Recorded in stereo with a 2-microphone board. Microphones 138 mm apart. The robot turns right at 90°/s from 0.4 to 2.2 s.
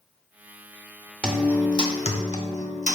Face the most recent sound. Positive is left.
turn(degrees=80)